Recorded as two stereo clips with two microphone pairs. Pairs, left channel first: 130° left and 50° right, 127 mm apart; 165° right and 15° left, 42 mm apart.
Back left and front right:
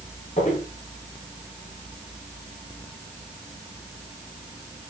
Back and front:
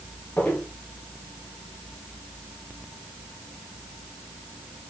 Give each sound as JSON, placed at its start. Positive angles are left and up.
{"t": 0.4, "sound": "footsteps", "azimuth_deg": 145, "distance_m": 4.0}